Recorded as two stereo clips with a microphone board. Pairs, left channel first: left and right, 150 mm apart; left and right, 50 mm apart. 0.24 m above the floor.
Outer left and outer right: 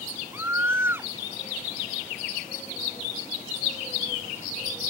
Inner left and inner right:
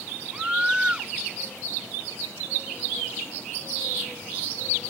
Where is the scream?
15° right (ahead or behind).